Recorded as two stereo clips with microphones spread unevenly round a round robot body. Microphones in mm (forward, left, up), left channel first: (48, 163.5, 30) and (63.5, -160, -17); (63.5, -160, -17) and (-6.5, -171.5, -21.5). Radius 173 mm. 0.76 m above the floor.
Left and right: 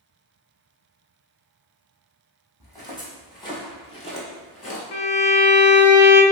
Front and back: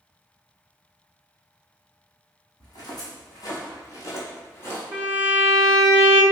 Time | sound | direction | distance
2.6 | footsteps | 15° left | 1.8 m
4.9 | a violin | 125° left | 0.6 m